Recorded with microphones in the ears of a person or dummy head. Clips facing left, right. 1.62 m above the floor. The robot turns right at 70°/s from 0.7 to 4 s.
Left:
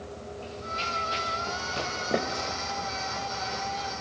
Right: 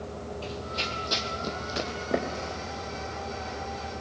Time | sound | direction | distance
0.4 | running footsteps | 55° right (ahead or behind) | 3 m